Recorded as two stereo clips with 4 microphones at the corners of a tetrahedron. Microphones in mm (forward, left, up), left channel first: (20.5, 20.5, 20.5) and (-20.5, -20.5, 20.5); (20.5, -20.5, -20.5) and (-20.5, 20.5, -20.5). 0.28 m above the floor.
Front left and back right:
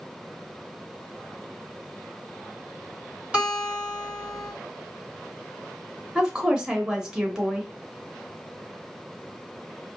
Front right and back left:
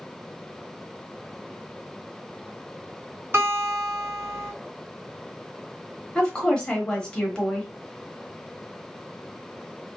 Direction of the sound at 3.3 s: 160° left.